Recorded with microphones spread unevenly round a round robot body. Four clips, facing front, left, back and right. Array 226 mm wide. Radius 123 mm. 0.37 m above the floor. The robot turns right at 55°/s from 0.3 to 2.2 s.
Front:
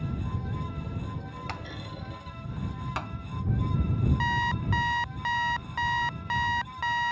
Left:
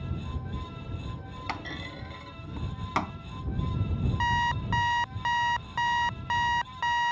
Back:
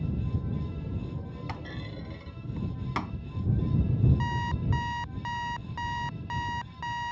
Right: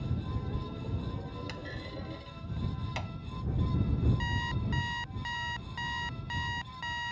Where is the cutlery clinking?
I don't hear cutlery clinking.